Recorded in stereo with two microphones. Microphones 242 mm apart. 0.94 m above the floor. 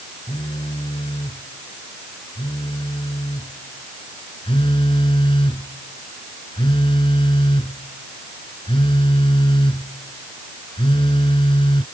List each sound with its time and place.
0.3 s a phone buzzing: 20° left (ahead or behind)